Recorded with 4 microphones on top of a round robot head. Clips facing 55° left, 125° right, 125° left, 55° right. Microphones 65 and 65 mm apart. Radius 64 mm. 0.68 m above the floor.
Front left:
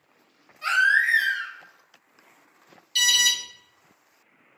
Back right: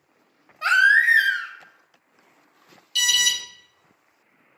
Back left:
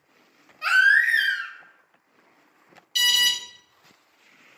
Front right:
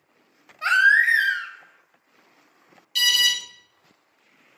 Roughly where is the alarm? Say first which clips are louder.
Even, front right 1 dB; ahead left.